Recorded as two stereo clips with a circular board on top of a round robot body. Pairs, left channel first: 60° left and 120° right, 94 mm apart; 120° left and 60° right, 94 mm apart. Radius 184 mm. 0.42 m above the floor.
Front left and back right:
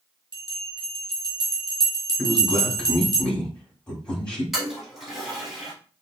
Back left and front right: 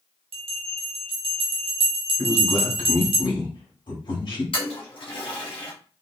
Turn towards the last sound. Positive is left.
turn(degrees=155)